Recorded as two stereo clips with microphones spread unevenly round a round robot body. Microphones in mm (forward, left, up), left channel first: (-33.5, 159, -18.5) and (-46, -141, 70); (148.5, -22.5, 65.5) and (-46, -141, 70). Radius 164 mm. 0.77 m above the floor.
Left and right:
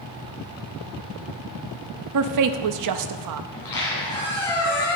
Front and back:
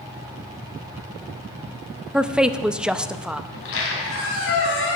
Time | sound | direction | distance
2.1 | a woman speaking | 60° right | 0.7 m
3.5 | a squeak | 5° left | 3 m